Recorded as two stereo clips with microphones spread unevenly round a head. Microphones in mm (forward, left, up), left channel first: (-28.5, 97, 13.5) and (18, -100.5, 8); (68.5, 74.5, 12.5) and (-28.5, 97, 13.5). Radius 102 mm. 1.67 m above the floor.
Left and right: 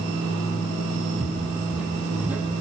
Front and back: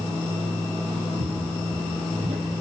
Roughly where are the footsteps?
Behind.